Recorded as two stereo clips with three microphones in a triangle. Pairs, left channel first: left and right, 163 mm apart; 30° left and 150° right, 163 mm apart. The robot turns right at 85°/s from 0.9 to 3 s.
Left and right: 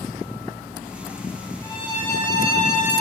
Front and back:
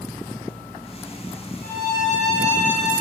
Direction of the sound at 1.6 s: 20° left.